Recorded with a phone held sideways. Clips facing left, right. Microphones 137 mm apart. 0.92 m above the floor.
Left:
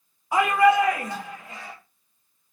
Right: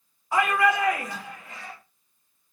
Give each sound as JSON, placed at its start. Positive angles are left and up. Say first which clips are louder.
{"t": 0.3, "sound": "a shout", "louder": "left 4 dB", "side_deg": 20, "distance_m": 0.9}